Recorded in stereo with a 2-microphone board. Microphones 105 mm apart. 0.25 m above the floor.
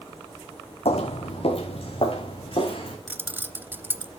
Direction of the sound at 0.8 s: 70° left (ahead or behind).